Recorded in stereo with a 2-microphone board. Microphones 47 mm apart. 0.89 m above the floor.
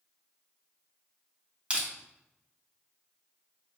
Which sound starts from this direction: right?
Crushing, at 1.7 s.